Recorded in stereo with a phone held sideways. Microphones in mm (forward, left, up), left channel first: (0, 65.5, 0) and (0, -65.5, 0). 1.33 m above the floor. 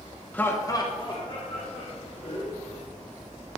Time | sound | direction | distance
0.3 | laughter | 10° left (ahead or behind) | 0.8 m